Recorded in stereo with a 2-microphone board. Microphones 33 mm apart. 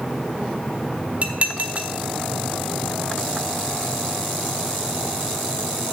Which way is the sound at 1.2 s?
40° right (ahead or behind).